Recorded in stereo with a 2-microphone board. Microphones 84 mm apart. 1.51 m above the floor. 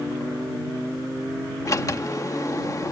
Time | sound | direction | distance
1.6 | a sliding door | 40° left (ahead or behind) | ?